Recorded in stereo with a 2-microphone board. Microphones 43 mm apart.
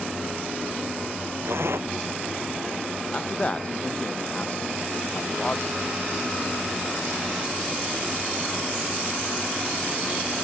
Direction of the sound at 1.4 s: 70° right (ahead or behind).